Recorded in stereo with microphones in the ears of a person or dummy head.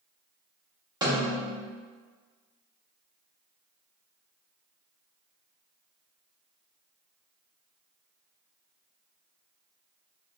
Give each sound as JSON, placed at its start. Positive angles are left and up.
{"t": 1.0, "sound": "a snare drum", "side_deg": -25, "distance_m": 0.9}